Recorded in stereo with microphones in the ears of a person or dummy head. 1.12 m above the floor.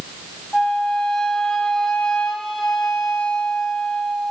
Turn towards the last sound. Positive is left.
turn(degrees=5)  # may be behind; listen again after turning